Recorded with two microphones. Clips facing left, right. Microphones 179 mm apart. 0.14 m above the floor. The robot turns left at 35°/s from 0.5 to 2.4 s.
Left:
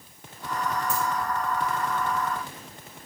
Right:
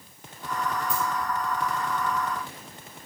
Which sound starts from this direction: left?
A dropped coin, at 0.9 s.